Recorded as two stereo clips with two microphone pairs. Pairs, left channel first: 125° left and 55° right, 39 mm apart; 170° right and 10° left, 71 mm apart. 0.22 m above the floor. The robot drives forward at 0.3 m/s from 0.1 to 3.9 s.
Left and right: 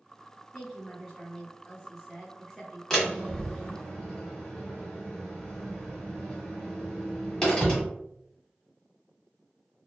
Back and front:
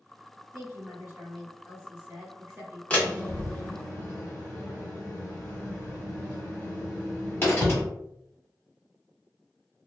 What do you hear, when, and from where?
0.5 s a woman speaking: 30° left, 2.0 m; by 2.8 s 50° left, 1.6 m
2.9 s a door slam: 165° left, 1.1 m; by 7.8 s 170° left, 1.2 m